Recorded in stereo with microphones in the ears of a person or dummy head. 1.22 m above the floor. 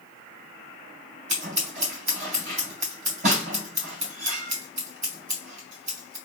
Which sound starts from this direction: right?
Scissors, at 1.3 s.